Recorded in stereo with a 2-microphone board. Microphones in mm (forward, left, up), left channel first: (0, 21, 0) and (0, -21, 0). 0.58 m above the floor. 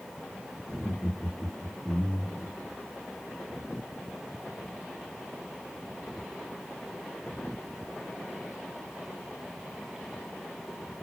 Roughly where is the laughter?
Centre.